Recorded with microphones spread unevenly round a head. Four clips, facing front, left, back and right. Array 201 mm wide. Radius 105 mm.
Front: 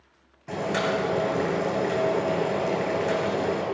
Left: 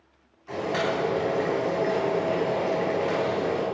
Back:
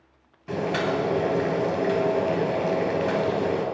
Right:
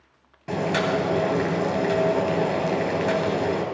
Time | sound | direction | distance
0.5 | boiling | 95° right | 3 m